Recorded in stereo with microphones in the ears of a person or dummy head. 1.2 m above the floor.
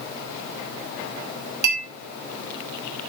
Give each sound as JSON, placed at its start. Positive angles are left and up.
{"t": 1.6, "sound": "a clink", "side_deg": -55, "distance_m": 3.5}